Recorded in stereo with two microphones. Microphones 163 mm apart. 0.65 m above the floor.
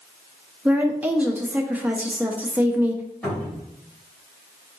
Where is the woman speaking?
10° right (ahead or behind), 0.6 m.